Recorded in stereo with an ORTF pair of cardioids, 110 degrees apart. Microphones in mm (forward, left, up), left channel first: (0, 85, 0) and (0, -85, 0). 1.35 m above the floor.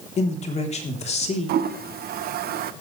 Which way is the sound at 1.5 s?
65° right.